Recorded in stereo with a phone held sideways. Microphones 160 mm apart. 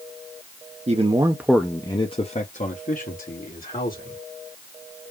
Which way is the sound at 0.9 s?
45° right (ahead or behind).